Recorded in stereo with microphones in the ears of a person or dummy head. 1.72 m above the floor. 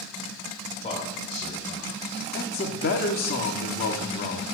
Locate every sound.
0.8 s a man speaking: 25° left (ahead or behind), 2.0 m
2.3 s a man speaking: 50° left (ahead or behind), 0.8 m